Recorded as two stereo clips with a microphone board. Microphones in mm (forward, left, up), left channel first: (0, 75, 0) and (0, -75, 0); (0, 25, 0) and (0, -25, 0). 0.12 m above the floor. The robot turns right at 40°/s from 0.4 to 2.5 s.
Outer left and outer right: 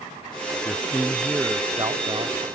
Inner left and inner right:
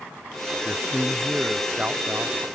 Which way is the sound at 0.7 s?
160° left.